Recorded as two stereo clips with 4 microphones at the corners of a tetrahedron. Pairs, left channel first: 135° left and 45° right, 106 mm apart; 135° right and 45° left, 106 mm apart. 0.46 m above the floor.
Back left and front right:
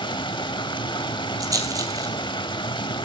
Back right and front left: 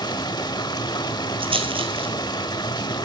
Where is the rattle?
10° left, 1.8 m.